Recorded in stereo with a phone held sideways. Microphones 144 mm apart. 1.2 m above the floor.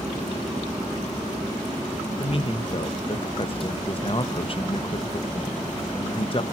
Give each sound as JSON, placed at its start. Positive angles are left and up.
{"t": 2.2, "sound": "a man speaking", "side_deg": 40, "distance_m": 1.0}